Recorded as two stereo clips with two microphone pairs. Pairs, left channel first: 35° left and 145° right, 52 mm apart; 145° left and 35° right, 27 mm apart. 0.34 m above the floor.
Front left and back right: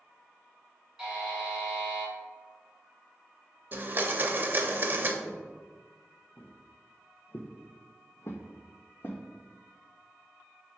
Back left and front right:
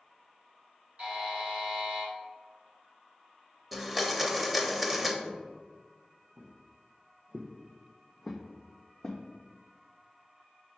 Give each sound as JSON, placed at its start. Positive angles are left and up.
{"t": 1.0, "sound": "a buzzer", "azimuth_deg": -70, "distance_m": 1.8}
{"t": 3.7, "sound": "a blender", "azimuth_deg": -120, "distance_m": 0.5}
{"t": 5.2, "sound": "footsteps", "azimuth_deg": -40, "distance_m": 1.5}